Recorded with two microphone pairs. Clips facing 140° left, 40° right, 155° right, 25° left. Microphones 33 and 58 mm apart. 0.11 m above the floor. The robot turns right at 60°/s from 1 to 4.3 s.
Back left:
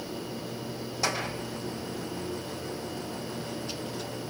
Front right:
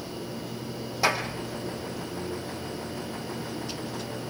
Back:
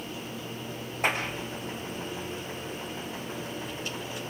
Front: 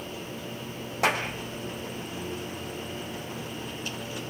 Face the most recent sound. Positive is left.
turn(degrees=-130)